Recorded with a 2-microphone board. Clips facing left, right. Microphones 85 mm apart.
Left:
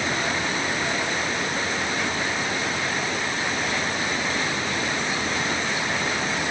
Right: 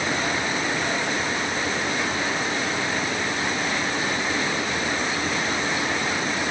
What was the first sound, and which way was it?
Only background noise.